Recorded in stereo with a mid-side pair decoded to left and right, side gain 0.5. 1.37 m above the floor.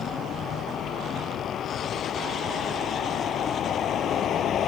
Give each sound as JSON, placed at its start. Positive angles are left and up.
{"t": 0.0, "sound": "a vehicle", "azimuth_deg": 55}